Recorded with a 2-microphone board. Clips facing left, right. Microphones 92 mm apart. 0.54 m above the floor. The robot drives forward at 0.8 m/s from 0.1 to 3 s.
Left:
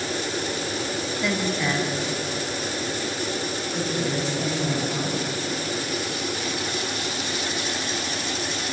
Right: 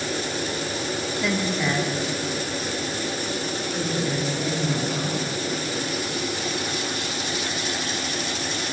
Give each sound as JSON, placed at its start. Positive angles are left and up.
{"t": 1.2, "sound": "a woman speaking", "side_deg": 0, "distance_m": 0.7}